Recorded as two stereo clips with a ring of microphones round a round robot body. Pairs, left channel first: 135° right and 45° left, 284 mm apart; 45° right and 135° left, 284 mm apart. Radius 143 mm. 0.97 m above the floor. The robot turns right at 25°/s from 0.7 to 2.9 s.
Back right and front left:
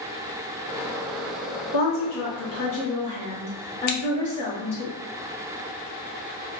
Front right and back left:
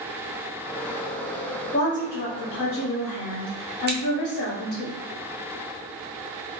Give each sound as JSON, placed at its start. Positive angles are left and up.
{"t": 1.7, "sound": "a woman speaking", "azimuth_deg": -115, "distance_m": 1.6}
{"t": 3.9, "sound": "scissors", "azimuth_deg": -165, "distance_m": 0.7}